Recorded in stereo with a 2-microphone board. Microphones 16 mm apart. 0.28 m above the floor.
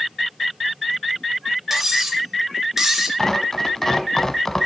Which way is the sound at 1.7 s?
25° right (ahead or behind).